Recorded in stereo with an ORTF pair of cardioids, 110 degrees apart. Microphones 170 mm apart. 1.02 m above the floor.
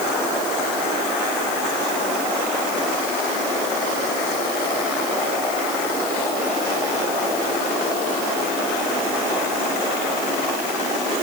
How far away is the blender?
No blender in this recording.